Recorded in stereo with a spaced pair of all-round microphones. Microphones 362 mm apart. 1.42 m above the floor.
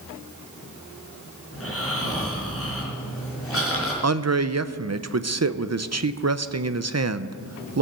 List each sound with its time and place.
1.5 s snoring: 40° left (ahead or behind), 4 m
4.0 s a man speaking: 45° right (ahead or behind), 0.6 m